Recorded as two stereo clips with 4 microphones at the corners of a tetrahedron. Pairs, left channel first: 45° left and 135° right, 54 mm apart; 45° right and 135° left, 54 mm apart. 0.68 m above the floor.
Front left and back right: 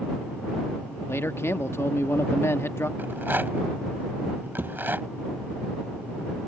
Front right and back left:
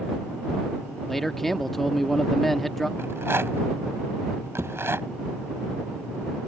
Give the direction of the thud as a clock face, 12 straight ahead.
6 o'clock.